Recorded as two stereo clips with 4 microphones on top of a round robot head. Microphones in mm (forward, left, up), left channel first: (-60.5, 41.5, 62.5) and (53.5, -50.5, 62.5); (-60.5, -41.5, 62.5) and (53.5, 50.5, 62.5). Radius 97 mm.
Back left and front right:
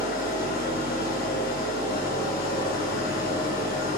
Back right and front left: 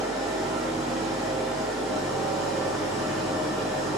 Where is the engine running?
130° left, 2.5 m.